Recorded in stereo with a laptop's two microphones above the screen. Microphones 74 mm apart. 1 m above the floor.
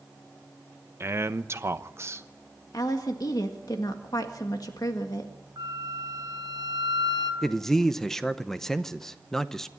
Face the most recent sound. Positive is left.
turn(degrees=5)  # may be behind; listen again after turning